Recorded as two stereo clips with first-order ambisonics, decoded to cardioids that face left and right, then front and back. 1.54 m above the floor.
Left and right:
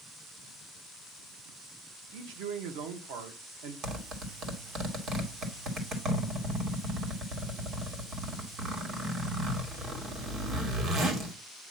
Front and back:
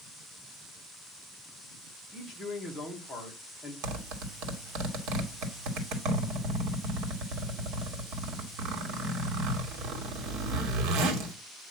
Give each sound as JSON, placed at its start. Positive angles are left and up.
{"t": 2.1, "sound": "a man speaking", "azimuth_deg": -75, "distance_m": 2.0}
{"t": 3.8, "sound": "a zipper", "azimuth_deg": -150, "distance_m": 2.0}